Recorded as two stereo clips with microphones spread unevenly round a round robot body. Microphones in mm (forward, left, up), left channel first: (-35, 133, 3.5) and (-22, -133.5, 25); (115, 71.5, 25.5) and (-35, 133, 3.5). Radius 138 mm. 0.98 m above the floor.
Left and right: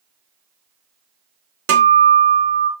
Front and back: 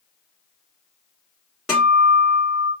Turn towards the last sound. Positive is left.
turn(degrees=-115)